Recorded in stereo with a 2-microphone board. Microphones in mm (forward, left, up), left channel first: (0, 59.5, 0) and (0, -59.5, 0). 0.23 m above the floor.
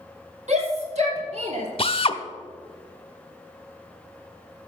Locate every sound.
0.5 s a shout: 60° right (ahead or behind), 5 m; by 1.7 s 55° right (ahead or behind), 4 m
1.8 s a drill: 45° left (ahead or behind), 0.9 m